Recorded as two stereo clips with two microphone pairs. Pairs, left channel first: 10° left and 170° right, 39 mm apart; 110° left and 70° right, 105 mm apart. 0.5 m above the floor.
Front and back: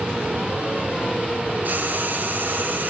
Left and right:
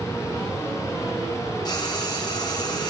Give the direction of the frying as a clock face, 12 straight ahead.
7 o'clock.